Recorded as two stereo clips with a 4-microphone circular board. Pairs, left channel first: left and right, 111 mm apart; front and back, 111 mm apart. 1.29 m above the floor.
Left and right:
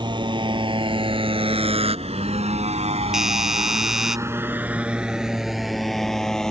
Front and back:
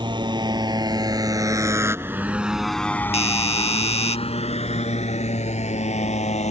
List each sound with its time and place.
0.0 s a motorcycle: 135° right; by 6.5 s 5° left
3.1 s a doorbell: 5° right